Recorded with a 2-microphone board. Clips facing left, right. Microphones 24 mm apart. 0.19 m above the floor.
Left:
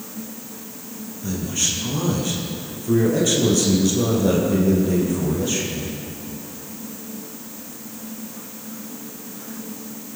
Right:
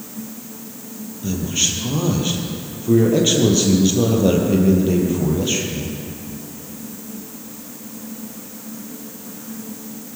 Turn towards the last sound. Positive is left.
turn(degrees=-25)  # may be behind; listen again after turning